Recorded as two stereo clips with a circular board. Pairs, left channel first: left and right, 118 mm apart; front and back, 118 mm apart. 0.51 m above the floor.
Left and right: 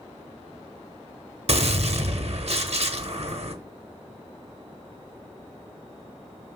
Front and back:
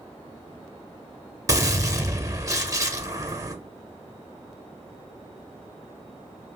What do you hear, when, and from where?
1.5 s a gunshot: 120° right, 0.6 m